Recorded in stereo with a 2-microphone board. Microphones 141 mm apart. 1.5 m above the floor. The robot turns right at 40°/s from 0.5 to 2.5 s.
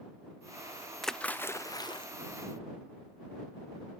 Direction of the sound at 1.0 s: Straight ahead.